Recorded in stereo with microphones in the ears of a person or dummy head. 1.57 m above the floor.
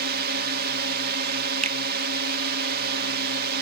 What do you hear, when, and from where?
0.0 s a drone: 50° right (ahead or behind)
1.6 s a finger snap: 40° right (ahead or behind)